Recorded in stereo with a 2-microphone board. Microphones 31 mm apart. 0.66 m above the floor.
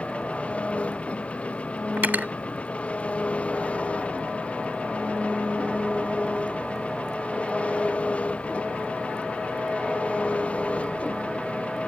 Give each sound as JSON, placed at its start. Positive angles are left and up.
{"t": 0.0, "sound": "an engine running", "side_deg": 40}
{"t": 2.0, "sound": "cutlery clinking", "side_deg": -75}